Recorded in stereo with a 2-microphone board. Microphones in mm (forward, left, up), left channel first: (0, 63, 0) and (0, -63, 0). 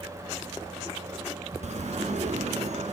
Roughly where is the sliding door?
Right.